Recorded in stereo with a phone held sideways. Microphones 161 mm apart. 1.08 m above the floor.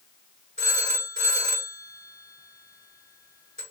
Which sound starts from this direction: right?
A phone ringing, at 0.6 s.